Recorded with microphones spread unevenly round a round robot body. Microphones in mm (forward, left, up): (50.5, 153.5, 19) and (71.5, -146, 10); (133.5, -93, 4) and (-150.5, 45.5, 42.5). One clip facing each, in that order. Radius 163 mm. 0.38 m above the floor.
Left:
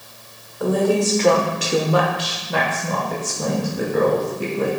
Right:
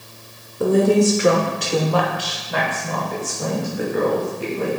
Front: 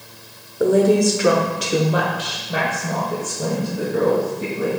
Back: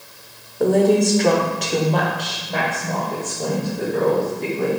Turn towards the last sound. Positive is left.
turn(degrees=55)